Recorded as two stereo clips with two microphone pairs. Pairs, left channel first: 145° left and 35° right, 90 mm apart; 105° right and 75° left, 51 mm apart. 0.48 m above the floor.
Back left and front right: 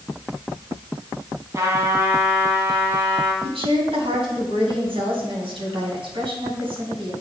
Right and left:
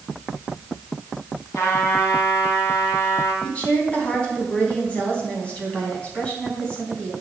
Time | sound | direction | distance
1.6 | a trumpet | 90° right | 2 m
3.4 | a woman speaking | 40° right | 3 m